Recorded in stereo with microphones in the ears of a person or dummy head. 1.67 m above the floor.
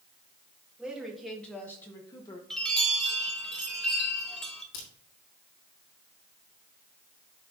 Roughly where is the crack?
Left.